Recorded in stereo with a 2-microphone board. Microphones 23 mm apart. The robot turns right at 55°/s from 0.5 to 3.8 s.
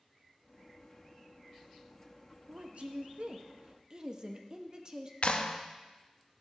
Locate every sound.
2.5 s a woman speaking: 115° right, 0.7 m; by 5.1 s 40° right, 0.7 m
5.2 s a clap: 55° left (ahead or behind), 0.6 m